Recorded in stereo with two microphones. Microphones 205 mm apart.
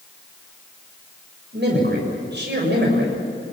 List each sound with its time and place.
1.5 s a man speaking: 60° right (ahead or behind), 7 m